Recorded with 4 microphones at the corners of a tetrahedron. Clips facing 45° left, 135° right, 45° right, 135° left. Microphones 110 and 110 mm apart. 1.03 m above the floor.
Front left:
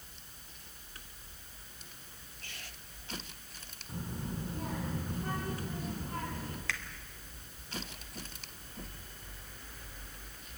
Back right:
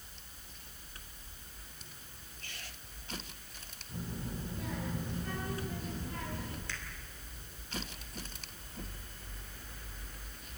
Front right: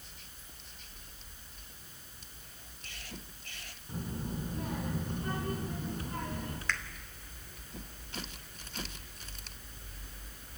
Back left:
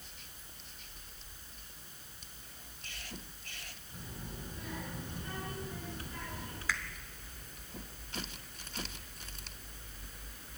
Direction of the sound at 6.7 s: 50° left.